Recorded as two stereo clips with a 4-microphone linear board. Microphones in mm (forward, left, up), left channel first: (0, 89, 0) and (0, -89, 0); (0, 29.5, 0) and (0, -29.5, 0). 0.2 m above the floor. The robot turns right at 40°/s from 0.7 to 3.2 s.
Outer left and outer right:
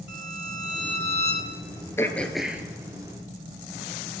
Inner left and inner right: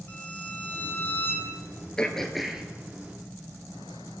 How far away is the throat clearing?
About 0.6 m.